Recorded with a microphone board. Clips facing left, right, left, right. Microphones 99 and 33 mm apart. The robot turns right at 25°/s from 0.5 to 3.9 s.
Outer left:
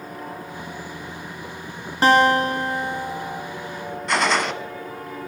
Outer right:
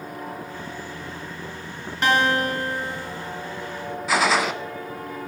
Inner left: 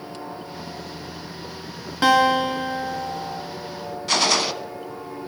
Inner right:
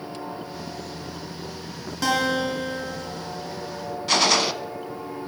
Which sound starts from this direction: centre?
A gunshot, at 4.1 s.